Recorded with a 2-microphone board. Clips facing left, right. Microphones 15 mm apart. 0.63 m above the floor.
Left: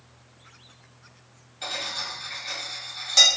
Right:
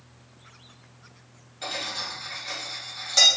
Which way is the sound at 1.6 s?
10° left (ahead or behind).